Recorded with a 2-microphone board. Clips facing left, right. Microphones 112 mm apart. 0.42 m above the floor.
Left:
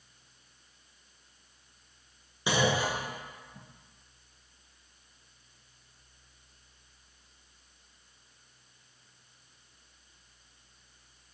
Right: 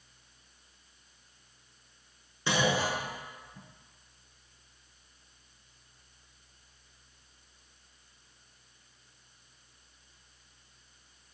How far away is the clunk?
About 0.9 m.